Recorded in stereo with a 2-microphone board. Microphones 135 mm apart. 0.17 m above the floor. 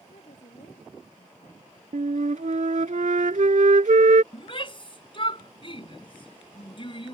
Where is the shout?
40° left (ahead or behind).